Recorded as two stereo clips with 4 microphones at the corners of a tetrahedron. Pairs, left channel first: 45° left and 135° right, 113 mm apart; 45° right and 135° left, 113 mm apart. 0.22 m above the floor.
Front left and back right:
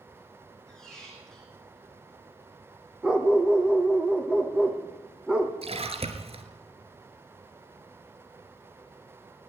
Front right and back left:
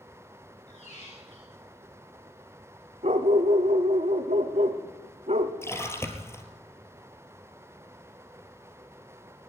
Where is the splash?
110° right, 3 m.